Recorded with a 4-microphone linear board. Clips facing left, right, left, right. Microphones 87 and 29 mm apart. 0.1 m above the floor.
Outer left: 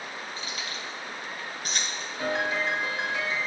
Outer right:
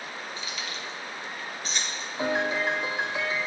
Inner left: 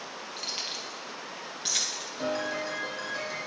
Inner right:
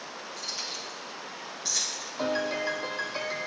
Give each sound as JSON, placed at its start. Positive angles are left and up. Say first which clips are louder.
{"t": 0.4, "sound": "keys jangling", "louder": "even, inner left 1 dB", "side_deg": 40, "distance_m": 2.5}
{"t": 2.2, "sound": "a piano", "louder": "outer right 2 dB, inner right 3 dB", "side_deg": -20, "distance_m": 2.0}